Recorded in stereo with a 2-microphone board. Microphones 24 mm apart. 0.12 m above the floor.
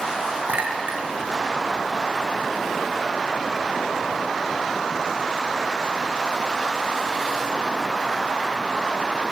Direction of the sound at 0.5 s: 70° right (ahead or behind).